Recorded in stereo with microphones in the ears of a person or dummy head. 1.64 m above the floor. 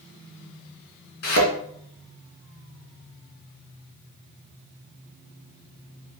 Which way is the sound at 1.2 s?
50° left (ahead or behind).